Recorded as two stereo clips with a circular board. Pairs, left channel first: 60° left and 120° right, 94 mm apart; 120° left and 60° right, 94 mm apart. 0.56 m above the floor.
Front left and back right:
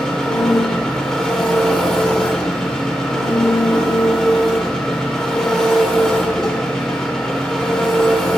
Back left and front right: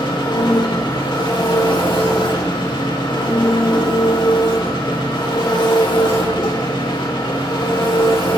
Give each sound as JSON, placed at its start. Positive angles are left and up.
{"t": 0.0, "sound": "an engine running", "azimuth_deg": 145, "distance_m": 1.3}